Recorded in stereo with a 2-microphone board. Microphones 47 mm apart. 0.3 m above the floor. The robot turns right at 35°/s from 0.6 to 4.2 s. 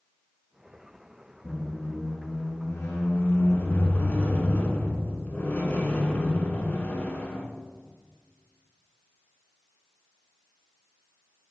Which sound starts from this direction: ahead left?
A squeak, at 1.4 s.